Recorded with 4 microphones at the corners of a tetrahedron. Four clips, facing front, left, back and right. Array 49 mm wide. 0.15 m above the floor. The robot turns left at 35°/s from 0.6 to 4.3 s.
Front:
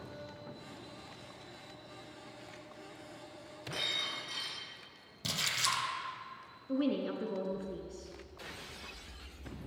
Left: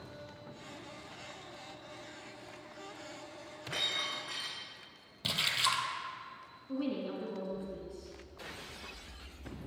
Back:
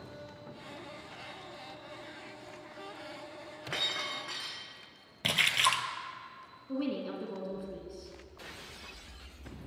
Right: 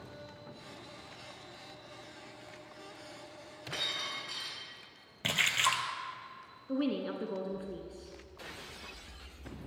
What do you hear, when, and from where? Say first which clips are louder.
3.7 s breaking glass: left 1 dB, back 2 dB; 175° left, 4.5 m; by 4.6 s 155° left, 4.5 m
5.2 s a splash: right 3 dB, back 7 dB; 155° right, 1.1 m
6.7 s a woman speaking: right 3 dB, front 2 dB; 65° right, 1.5 m